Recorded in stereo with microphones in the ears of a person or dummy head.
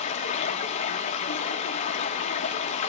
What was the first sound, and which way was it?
Running water, 35° left (ahead or behind).